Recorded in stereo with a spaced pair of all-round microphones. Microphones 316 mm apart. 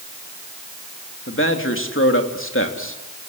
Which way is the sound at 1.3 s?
40° left (ahead or behind).